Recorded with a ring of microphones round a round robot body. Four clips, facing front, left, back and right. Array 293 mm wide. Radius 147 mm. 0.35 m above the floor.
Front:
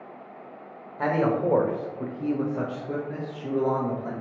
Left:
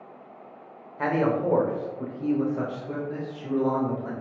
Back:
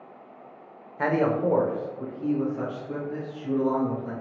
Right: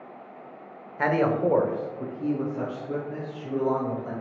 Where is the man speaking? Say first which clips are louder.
Right 1 dB, even; 115° right, 0.8 m; by 4.1 s 25° left, 1.7 m.